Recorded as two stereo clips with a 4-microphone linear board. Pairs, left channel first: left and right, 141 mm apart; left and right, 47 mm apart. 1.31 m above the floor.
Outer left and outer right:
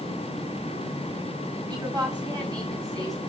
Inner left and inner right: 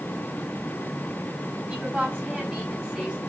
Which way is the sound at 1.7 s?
30° right (ahead or behind).